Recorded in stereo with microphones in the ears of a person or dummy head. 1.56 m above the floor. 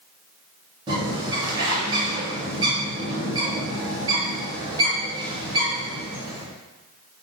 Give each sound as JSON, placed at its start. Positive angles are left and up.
{"t": 0.9, "sound": "a bird", "side_deg": -25, "distance_m": 1.1}